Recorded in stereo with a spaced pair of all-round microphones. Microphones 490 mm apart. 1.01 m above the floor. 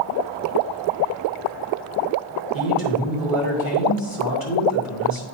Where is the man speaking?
45° left (ahead or behind), 3 m.